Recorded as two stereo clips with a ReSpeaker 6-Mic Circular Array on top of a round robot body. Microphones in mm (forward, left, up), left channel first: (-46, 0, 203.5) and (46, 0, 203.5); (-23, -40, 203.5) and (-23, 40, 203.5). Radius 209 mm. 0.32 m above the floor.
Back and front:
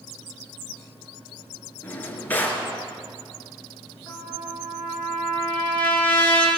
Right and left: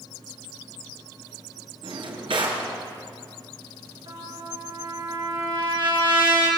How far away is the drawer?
About 4.5 m.